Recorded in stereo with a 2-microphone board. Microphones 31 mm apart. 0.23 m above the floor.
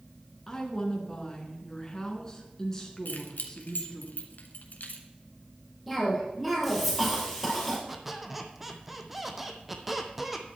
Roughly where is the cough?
Centre.